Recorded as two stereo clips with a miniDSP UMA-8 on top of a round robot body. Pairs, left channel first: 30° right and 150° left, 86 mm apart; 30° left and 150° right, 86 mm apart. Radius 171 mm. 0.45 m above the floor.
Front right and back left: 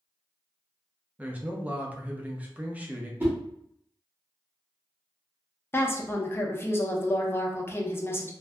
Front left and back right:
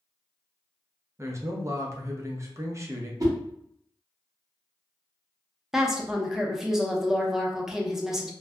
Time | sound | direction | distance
1.2 | a man speaking | 150° right | 0.8 m
3.2 | a whoosh | 155° right | 1.3 m
5.7 | a woman speaking | 70° right | 0.8 m